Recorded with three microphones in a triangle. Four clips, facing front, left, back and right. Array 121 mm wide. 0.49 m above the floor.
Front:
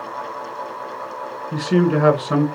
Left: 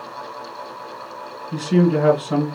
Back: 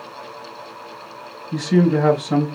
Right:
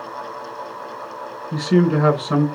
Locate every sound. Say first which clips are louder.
1.5 s a man speaking: even, back 1 dB; 35° right, 2.5 m